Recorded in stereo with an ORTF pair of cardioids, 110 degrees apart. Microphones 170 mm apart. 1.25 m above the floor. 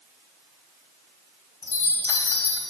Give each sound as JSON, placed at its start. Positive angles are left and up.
{"t": 1.6, "sound": "a chime", "azimuth_deg": 20, "distance_m": 1.6}